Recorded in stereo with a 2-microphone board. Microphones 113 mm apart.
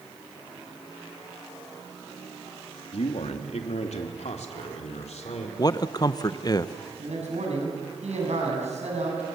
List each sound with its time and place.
2.9 s a man speaking: 65° left (ahead or behind), 2 m; by 5.5 s 75° left (ahead or behind), 4 m
5.6 s a man speaking: 35° left (ahead or behind), 0.9 m
7.0 s a man speaking: 85° right, 7.5 m